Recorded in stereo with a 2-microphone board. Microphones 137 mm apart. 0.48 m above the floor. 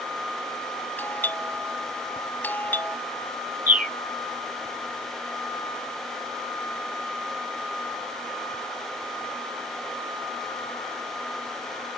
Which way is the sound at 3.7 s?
85° right.